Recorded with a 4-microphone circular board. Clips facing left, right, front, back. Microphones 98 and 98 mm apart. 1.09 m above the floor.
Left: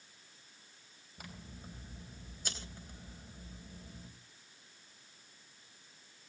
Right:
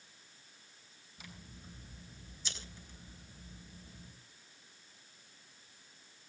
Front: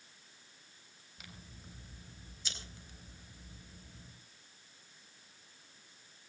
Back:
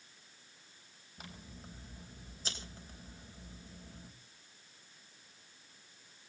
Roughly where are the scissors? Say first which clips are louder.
Left 3 dB, back 4 dB; behind left.